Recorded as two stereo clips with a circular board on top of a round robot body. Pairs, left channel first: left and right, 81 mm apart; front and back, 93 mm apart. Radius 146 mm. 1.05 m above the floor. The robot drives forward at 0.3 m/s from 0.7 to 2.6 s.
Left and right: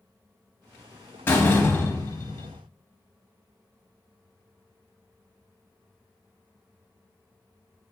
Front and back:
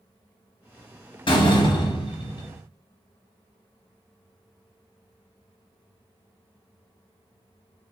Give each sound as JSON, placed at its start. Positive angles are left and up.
{"t": 1.3, "sound": "a door slam", "azimuth_deg": 30, "distance_m": 1.1}